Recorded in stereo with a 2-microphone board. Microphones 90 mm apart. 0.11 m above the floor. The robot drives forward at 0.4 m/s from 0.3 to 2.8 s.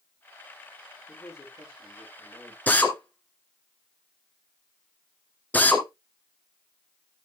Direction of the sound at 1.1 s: 30° left (ahead or behind).